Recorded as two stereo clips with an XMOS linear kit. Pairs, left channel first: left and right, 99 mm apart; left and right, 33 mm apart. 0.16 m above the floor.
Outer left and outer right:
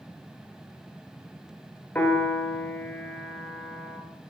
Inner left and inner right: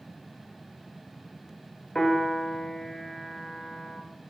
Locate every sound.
1.9 s a piano: 15° left (ahead or behind), 0.8 m